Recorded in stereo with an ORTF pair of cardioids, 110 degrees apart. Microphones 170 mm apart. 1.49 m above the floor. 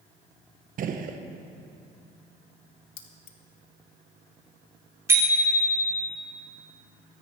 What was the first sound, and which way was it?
A gunshot, 55° right.